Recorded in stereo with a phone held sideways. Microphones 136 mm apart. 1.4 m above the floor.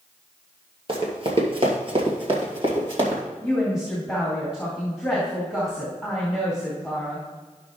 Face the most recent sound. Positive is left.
turn(degrees=-5)  # may be behind; listen again after turning